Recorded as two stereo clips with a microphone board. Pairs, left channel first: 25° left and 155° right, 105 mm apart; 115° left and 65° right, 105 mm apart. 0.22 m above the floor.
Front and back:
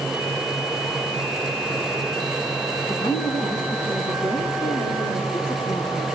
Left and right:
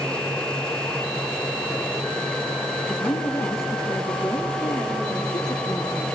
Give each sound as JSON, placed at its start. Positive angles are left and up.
{"t": 2.9, "sound": "a woman speaking", "azimuth_deg": 45, "distance_m": 3.0}